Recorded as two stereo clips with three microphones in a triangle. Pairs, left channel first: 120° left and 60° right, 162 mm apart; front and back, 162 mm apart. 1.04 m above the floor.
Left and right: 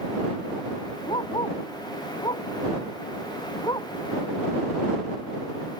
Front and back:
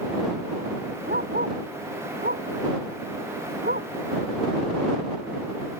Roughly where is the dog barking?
Behind.